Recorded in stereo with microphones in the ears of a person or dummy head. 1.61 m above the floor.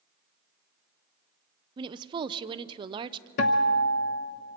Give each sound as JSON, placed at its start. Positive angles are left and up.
{"t": 1.8, "sound": "a woman speaking", "side_deg": -25, "distance_m": 0.6}
{"t": 3.4, "sound": "a guitar", "side_deg": 40, "distance_m": 0.9}